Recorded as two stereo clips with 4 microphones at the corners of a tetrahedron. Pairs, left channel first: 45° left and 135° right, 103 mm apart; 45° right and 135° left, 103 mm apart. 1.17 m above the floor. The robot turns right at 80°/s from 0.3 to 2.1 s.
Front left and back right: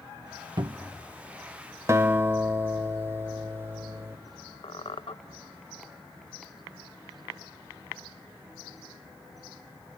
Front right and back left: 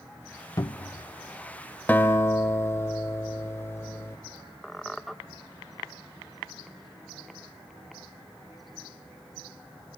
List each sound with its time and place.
0.6 s a cupboard door: 100° right, 0.5 m; by 1.1 s 60° right, 0.5 m
1.9 s a guitar: 105° right, 1.1 m; by 4.2 s 90° right, 1.1 m
4.6 s a squeak: 45° left, 0.6 m